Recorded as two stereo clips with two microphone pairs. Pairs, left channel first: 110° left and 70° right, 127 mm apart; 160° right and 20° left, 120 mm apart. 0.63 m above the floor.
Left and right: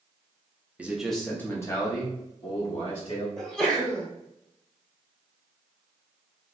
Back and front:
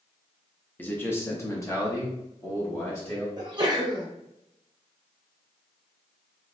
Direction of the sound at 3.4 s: 20° left.